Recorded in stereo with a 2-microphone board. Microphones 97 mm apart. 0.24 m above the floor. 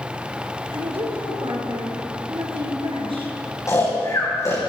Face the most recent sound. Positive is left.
turn(degrees=35)  # may be behind; listen again after turning